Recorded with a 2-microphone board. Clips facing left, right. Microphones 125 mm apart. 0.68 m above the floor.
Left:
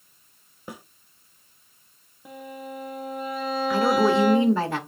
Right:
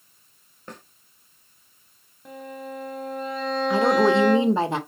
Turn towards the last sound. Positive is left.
turn(degrees=-20)  # may be behind; listen again after turning